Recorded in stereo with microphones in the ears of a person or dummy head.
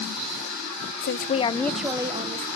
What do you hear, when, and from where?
1.0 s a woman speaking: 55° left (ahead or behind), 0.7 m; by 2.5 s 35° right (ahead or behind), 0.9 m